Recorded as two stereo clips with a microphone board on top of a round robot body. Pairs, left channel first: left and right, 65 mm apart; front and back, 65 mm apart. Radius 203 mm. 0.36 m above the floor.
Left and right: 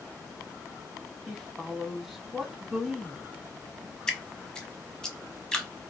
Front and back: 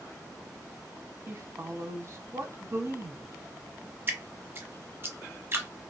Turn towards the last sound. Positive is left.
turn(degrees=165)